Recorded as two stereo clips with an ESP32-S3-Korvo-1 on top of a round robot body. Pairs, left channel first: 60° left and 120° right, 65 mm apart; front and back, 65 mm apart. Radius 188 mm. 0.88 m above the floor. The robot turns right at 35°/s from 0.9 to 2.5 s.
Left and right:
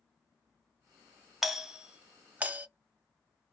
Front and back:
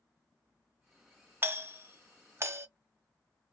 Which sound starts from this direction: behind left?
A doorbell, at 1.4 s.